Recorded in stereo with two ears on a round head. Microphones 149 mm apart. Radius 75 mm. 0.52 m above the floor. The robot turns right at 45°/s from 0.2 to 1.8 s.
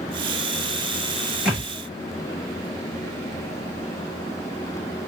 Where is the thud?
5° right (ahead or behind), 3.5 m; by 1.7 s 15° right (ahead or behind), 3.5 m.